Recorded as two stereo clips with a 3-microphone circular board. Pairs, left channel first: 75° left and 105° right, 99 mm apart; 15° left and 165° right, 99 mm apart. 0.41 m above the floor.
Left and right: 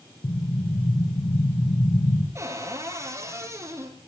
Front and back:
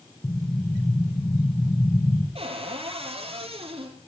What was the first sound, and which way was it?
An explosion, 70° left.